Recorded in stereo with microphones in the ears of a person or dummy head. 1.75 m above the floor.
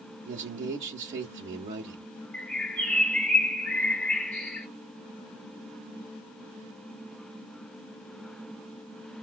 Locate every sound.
0.2 s a man speaking: 45° right (ahead or behind), 0.6 m
2.3 s a bird: 10° left (ahead or behind), 1.6 m